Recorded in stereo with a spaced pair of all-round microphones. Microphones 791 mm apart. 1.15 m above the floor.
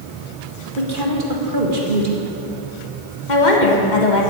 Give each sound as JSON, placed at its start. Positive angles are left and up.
{"t": 0.8, "sound": "a woman speaking", "side_deg": -80, "distance_m": 1.8}
{"t": 3.3, "sound": "a woman speaking", "side_deg": 60, "distance_m": 1.7}